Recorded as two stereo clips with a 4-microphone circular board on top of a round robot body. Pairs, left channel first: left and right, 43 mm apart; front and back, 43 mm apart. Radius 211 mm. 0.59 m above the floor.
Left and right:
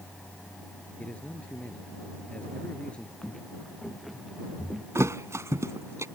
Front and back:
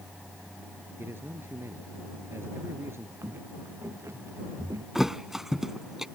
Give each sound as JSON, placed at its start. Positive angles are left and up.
{"t": 1.0, "sound": "a man speaking", "azimuth_deg": 155}
{"t": 3.2, "sound": "footsteps", "azimuth_deg": 170}
{"t": 5.0, "sound": "a thud", "azimuth_deg": -95}